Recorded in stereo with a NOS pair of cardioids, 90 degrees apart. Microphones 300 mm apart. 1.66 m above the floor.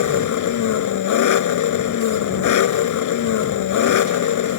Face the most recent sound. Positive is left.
turn(degrees=70)